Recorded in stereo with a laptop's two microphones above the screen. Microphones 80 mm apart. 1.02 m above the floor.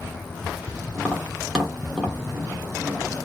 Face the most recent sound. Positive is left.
turn(degrees=-10)  # may be behind; listen again after turning